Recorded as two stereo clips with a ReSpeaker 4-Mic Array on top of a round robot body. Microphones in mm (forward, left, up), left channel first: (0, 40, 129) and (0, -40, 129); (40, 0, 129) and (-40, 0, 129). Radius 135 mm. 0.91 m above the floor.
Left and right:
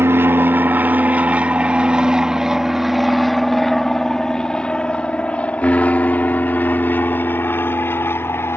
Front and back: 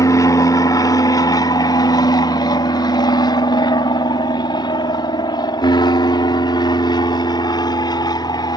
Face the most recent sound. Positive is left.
turn(degrees=30)